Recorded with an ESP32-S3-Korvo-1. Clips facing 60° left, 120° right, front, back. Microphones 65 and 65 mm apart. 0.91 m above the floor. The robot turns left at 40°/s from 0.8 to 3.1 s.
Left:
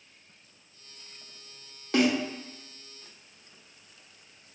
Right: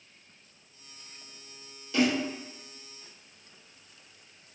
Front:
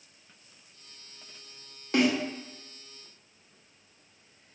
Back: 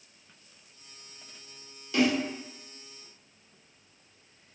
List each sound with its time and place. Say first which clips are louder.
1.9 s a snare drum: left 2 dB, front 1 dB; 35° left, 0.7 m; by 2.1 s 25° left, 0.7 m